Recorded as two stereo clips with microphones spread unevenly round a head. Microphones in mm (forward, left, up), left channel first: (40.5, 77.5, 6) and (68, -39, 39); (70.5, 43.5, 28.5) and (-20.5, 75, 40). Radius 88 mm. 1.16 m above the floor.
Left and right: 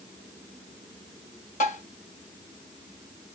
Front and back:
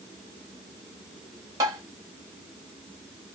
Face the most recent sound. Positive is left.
turn(degrees=140)